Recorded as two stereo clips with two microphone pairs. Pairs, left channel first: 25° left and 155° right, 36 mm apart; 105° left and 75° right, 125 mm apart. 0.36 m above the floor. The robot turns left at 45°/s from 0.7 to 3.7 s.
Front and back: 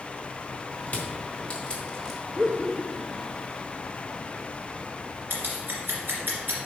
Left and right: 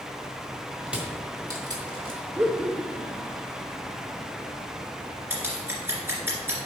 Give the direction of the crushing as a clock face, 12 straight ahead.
12 o'clock.